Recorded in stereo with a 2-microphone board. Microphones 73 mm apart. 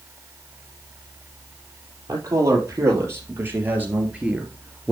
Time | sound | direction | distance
2.1 | a man speaking | 45° right (ahead or behind) | 4.5 m